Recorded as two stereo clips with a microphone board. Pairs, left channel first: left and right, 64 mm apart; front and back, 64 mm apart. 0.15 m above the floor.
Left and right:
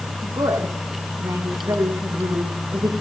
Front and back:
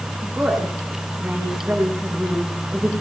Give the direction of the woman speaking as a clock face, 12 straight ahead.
3 o'clock.